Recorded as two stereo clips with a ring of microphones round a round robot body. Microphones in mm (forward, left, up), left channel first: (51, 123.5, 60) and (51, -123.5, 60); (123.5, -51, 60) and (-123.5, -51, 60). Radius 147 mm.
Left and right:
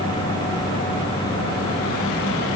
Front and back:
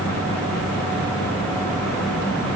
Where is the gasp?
I don't hear a gasp.